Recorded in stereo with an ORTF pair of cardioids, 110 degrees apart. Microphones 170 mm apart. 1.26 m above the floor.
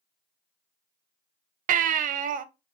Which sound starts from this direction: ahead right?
A baby crying, at 1.7 s.